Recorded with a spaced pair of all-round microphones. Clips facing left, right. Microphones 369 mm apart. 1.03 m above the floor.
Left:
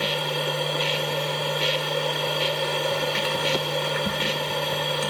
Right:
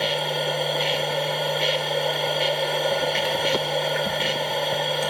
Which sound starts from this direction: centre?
A machine running, at 0.0 s.